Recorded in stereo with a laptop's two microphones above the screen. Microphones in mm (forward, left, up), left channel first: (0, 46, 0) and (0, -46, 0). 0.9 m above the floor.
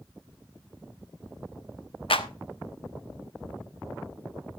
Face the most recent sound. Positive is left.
turn(degrees=75)  # may be behind; listen again after turning